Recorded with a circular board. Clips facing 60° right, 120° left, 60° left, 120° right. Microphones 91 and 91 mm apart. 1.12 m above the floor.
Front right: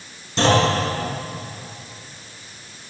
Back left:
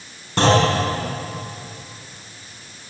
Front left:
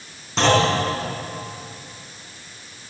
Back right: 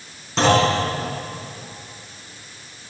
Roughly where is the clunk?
Behind left.